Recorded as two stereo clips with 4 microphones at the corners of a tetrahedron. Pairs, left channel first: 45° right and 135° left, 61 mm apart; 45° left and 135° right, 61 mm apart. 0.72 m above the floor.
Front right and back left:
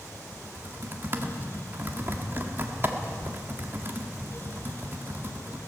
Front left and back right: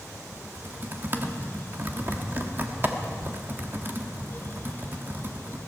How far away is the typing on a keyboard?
About 1.3 m.